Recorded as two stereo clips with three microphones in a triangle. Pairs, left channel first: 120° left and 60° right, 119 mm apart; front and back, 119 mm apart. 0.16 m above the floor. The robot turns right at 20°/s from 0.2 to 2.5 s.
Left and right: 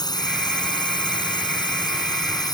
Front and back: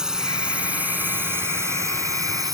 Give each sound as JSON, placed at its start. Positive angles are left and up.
{"t": 0.0, "sound": "a drone", "azimuth_deg": 100}